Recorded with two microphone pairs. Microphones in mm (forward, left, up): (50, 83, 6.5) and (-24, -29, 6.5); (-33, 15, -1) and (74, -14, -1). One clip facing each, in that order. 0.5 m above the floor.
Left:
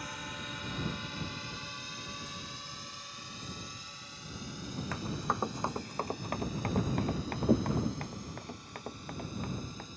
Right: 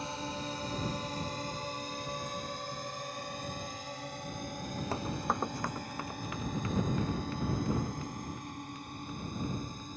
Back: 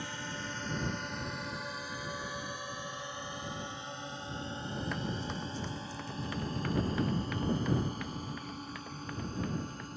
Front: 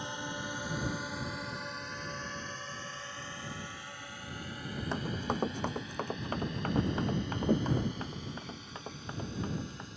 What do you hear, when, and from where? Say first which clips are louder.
0.0 s a drone: right 5 dB, front 2 dB; 75° right; by 10.0 s 155° right
4.9 s running footsteps: right 2 dB, front 3 dB; 70° right; by 9.9 s 45° left